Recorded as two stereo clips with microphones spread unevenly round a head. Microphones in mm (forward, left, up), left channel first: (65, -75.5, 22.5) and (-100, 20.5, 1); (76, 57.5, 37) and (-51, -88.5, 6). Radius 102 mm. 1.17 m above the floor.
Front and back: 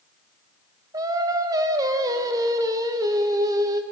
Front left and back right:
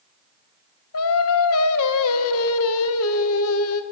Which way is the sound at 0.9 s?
75° left.